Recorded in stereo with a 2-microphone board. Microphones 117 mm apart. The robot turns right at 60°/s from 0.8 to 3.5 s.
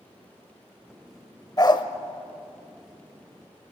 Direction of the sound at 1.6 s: 35° left (ahead or behind).